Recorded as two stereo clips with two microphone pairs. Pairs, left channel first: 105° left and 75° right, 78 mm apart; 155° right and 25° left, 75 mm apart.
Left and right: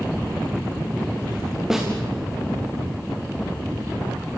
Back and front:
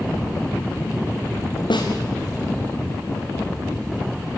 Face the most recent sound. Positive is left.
turn(degrees=-160)